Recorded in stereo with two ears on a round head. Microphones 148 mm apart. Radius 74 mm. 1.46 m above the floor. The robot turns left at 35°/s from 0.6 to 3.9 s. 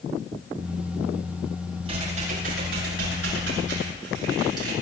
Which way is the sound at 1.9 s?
35° right.